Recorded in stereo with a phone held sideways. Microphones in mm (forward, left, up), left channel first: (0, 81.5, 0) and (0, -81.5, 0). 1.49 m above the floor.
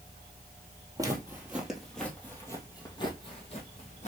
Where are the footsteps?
20° right (ahead or behind), 1.5 m; by 4.1 s 45° left (ahead or behind), 2 m.